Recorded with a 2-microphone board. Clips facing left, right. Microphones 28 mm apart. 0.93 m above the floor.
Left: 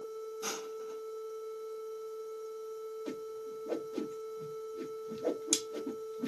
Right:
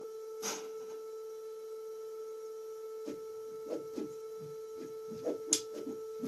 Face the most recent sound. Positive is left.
turn(degrees=60)  # may be behind; listen again after turning